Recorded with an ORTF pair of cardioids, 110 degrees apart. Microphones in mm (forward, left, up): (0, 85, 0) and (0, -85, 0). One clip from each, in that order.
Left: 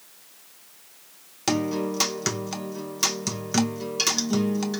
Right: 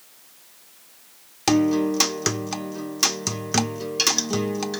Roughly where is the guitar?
Ahead.